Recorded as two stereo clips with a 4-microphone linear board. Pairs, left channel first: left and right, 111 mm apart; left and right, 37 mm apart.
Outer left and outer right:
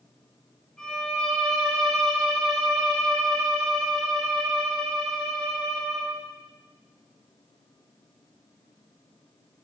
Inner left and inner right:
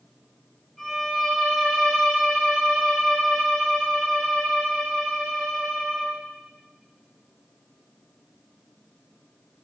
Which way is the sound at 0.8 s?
5° left (ahead or behind).